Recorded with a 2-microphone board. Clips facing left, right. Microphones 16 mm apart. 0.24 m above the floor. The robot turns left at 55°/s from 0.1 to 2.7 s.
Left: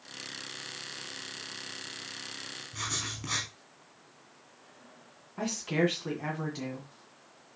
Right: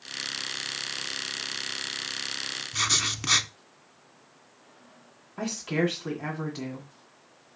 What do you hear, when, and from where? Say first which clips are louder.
2.7 s writing: right 10 dB; 55° right (ahead or behind), 0.8 m
5.4 s a woman speaking: right 1 dB; 10° right (ahead or behind), 1.8 m